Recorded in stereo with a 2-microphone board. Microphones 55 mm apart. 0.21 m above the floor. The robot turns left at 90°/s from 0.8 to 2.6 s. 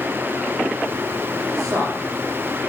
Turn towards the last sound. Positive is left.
turn(degrees=-170)